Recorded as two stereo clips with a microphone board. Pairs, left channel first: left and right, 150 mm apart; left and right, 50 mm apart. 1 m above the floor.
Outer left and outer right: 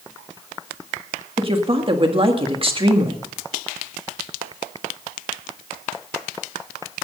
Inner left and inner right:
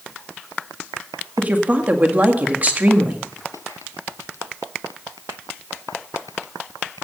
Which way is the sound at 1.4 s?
35° right (ahead or behind).